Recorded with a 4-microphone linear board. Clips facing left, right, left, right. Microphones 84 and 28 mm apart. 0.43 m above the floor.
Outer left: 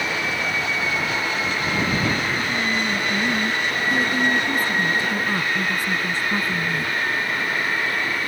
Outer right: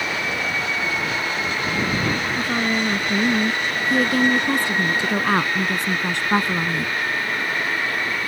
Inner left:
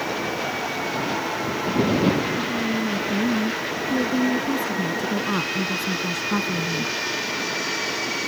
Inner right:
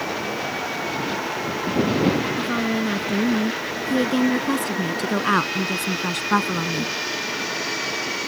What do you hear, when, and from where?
2.4 s a woman speaking: 80° right; by 6.9 s 75° right (ahead or behind)